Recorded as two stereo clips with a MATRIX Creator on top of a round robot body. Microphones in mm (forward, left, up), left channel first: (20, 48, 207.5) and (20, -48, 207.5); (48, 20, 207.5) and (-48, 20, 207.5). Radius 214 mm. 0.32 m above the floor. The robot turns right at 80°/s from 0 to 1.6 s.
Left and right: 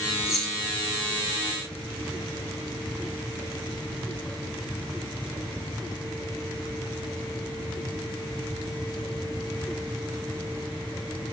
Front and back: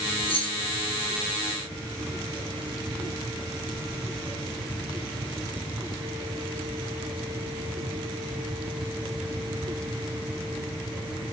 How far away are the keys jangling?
About 1.3 m.